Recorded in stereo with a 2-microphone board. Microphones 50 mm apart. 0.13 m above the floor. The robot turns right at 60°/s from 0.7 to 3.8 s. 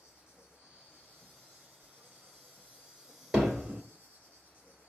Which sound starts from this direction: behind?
An insect, at 0.0 s.